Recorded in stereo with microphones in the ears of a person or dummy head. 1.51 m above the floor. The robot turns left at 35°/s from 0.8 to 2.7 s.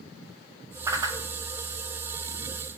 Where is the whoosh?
20° right (ahead or behind), 1.0 m; by 1.2 s 30° right (ahead or behind), 1.0 m.